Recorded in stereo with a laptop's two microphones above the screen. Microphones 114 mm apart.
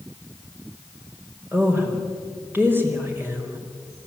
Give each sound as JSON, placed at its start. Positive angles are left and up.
{"t": 1.5, "sound": "a woman speaking", "side_deg": -15, "distance_m": 4.0}